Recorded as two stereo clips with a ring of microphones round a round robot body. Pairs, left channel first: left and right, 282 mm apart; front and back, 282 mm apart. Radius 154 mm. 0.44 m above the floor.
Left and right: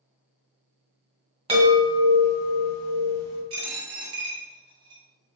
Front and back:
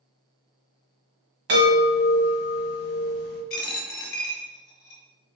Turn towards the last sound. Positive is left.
turn(degrees=-40)